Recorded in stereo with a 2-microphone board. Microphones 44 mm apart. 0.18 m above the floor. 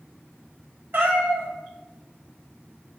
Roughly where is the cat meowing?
Right.